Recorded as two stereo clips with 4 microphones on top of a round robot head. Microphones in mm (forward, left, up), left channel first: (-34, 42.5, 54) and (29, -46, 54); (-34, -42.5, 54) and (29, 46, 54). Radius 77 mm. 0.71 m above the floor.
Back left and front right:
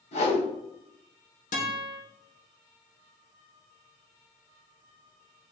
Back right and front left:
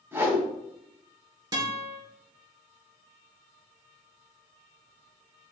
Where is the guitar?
110° left, 3 m.